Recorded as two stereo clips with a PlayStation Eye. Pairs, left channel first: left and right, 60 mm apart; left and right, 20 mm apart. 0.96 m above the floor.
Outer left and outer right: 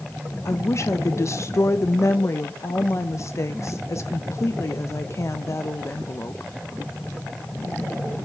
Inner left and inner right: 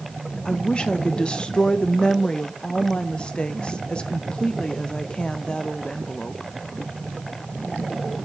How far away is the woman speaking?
About 0.5 m.